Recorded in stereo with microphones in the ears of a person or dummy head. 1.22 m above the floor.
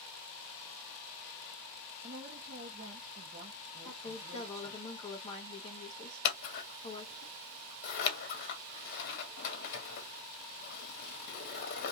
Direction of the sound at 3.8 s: 35° left (ahead or behind).